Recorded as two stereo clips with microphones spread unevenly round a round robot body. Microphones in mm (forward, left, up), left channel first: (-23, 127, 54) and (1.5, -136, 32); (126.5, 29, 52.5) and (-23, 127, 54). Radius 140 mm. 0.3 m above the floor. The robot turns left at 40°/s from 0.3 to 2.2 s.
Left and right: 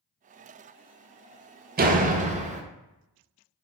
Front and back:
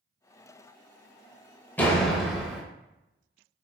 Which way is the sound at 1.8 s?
110° right.